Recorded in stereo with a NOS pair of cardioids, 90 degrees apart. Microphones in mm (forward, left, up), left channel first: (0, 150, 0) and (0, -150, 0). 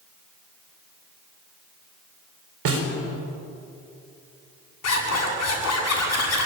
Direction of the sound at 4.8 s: 55° left.